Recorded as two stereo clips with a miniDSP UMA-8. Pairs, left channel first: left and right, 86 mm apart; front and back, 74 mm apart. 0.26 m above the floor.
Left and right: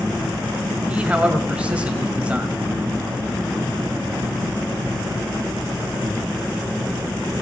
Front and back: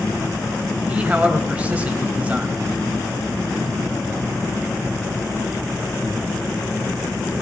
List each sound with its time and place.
0.9 s a man speaking: 140° right, 1.6 m